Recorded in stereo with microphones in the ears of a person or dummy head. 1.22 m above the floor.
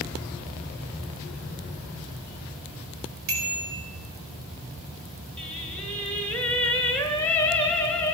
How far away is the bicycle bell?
About 4 m.